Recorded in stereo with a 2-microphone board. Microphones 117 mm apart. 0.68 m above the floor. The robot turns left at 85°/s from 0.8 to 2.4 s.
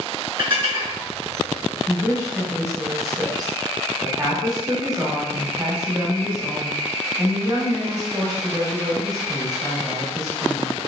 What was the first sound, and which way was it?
Dishes clattering, 45° right (ahead or behind).